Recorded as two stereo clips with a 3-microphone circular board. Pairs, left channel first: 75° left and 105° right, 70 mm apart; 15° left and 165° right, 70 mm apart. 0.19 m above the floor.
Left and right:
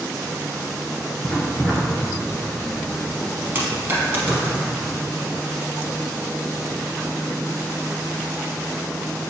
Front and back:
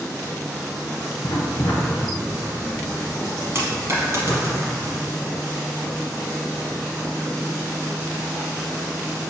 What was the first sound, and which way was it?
Writing, 10° right.